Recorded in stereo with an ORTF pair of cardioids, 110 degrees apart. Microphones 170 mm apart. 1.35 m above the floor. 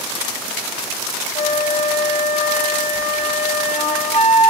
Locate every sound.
1.4 s a flute: 35° left, 0.8 m